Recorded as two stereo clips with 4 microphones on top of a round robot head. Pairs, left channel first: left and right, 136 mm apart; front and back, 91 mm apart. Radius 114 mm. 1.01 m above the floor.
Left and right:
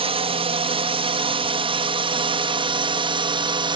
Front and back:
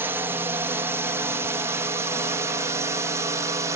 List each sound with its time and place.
0.0 s a drone: 120° right; by 3.8 s 135° right